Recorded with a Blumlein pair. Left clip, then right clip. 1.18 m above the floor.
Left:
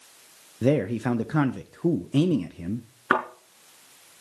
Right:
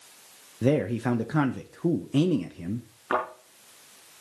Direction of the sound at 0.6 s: 5° left.